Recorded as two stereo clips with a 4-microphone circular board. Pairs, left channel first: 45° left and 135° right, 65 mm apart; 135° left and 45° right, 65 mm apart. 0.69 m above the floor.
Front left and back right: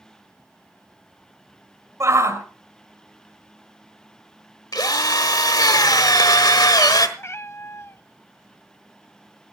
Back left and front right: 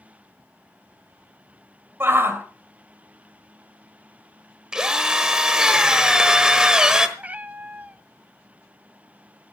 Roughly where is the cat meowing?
Ahead.